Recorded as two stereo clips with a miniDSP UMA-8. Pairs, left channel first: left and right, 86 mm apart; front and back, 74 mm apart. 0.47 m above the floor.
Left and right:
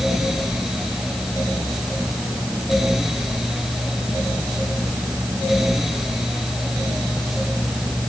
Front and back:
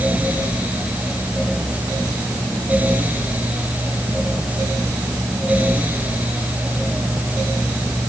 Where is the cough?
I don't hear a cough.